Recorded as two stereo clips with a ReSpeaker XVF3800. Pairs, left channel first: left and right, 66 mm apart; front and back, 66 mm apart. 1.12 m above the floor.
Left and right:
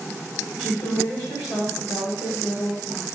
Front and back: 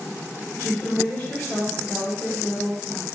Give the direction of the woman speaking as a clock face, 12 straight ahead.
10 o'clock.